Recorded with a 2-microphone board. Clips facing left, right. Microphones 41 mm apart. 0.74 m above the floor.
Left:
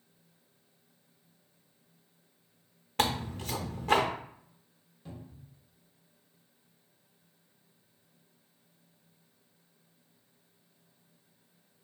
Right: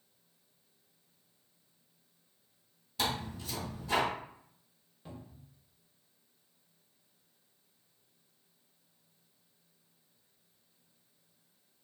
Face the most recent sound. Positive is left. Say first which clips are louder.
# left 2 dB
turn(degrees=-15)  # may be behind; listen again after turning